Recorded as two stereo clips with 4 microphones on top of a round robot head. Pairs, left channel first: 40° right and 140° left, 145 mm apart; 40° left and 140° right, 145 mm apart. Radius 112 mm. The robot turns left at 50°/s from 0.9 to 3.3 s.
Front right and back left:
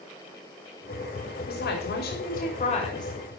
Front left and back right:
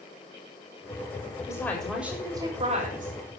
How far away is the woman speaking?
About 4 m.